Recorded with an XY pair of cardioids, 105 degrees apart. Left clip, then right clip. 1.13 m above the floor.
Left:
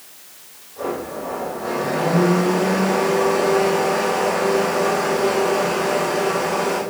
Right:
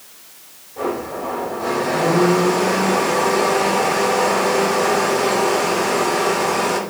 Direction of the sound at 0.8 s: 55° right.